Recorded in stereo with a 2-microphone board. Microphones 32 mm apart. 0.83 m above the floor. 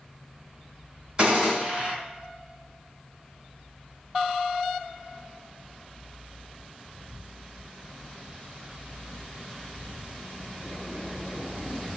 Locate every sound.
1.2 s a gunshot: 25° right (ahead or behind), 2 m